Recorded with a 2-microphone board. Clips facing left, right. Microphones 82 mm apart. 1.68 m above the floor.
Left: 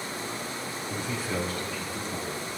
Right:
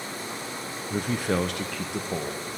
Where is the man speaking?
45° right (ahead or behind), 0.8 m; by 2.4 s 75° right (ahead or behind), 1.8 m.